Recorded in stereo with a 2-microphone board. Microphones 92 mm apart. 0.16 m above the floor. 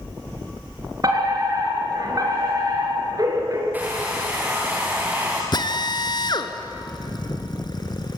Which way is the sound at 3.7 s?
20° right (ahead or behind).